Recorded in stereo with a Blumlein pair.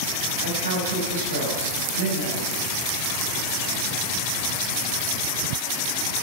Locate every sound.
0.4 s a woman speaking: 65° right, 5.5 m